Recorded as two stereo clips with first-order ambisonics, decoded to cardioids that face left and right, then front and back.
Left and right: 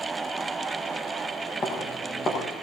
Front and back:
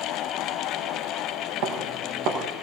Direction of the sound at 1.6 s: 155° left.